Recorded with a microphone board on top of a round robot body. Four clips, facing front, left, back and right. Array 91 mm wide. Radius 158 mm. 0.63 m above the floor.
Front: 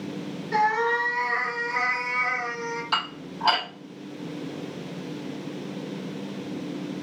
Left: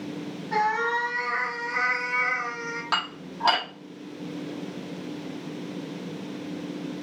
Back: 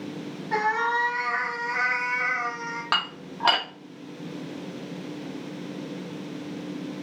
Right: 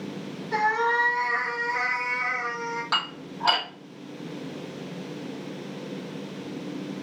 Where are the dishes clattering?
170° left, 1.5 m.